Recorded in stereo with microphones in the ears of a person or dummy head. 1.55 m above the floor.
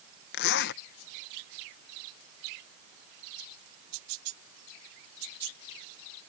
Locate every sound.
0.3 s a zipper: 60° left (ahead or behind)